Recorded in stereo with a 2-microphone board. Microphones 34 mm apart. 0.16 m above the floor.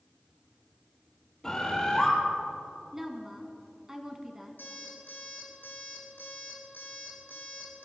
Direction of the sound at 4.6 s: 80° left.